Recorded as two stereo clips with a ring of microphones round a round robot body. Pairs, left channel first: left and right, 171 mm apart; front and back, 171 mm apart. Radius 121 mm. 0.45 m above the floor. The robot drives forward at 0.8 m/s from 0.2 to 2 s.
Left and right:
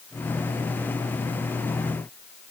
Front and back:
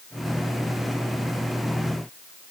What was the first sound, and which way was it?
Only background noise.